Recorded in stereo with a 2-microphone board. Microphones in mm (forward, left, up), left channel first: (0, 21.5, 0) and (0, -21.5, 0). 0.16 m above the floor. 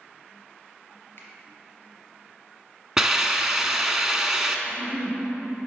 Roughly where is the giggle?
Left.